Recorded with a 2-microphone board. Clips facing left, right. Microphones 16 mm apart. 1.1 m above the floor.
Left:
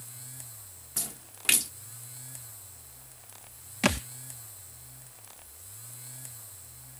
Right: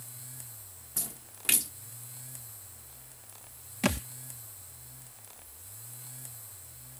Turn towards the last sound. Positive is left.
turn(degrees=20)  # may be behind; listen again after turning